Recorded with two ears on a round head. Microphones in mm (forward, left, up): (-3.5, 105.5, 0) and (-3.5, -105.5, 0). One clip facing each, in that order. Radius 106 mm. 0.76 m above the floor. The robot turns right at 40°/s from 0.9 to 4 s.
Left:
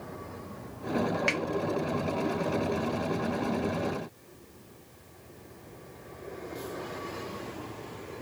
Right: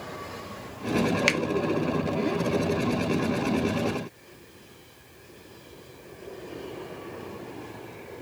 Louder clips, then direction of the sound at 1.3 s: Right 4 dB; 50° right (ahead or behind).